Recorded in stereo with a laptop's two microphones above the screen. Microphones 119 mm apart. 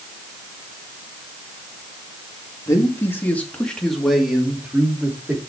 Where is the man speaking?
25° left (ahead or behind), 2 m; by 5.4 s 15° right (ahead or behind), 3 m.